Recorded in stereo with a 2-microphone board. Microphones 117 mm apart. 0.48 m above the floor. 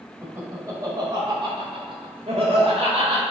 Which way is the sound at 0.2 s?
25° right (ahead or behind).